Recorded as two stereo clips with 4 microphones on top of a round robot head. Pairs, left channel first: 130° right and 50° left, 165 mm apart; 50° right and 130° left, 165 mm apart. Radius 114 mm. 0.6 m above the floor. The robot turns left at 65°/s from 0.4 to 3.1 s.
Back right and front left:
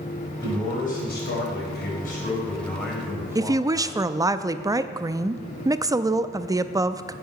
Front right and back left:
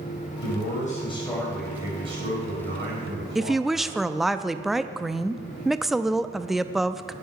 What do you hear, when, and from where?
0.4 s a man speaking: 60° right, 4.5 m; by 4.1 s 125° left, 4.5 m
3.4 s a woman speaking: 45° left, 0.5 m